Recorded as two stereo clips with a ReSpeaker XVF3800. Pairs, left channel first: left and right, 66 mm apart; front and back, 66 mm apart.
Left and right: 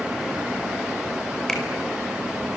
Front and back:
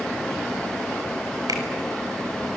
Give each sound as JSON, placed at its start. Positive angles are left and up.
{"t": 1.5, "sound": "a finger snap", "azimuth_deg": 170, "distance_m": 5.5}